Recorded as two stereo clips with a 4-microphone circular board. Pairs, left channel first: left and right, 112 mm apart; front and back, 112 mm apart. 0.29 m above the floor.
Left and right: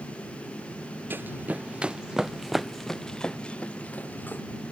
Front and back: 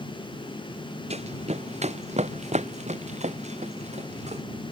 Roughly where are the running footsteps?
Behind.